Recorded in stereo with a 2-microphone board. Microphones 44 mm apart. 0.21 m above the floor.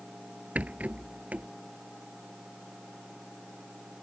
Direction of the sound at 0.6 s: 30° right (ahead or behind).